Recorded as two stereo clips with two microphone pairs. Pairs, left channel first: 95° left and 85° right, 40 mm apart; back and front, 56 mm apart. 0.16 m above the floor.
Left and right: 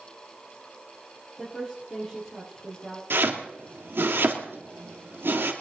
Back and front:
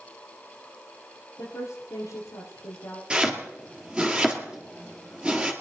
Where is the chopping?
70° right, 2.5 m.